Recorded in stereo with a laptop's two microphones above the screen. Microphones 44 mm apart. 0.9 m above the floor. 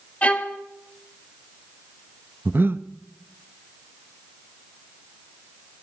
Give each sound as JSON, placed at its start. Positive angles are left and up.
{"t": 0.2, "sound": "a violin", "side_deg": 35, "distance_m": 1.1}
{"t": 2.5, "sound": "breathing", "side_deg": -55, "distance_m": 0.6}